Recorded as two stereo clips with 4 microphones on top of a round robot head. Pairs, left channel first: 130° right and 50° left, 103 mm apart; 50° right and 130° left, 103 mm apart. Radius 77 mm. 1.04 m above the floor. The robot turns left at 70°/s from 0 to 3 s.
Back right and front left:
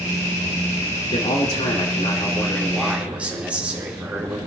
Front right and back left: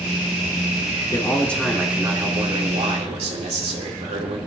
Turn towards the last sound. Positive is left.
turn(degrees=130)